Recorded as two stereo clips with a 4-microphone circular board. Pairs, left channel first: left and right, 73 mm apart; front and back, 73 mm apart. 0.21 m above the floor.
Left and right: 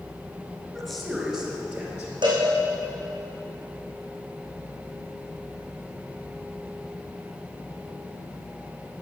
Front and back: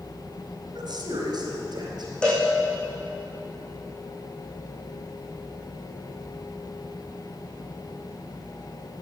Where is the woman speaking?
Straight behind, 2.5 m; by 2.1 s 160° right, 4 m.